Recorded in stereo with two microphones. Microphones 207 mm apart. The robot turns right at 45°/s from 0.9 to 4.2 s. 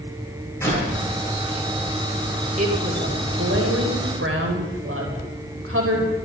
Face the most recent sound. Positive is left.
turn(degrees=-75)